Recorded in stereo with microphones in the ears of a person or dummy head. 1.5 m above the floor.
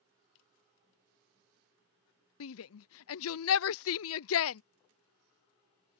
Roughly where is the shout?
Left.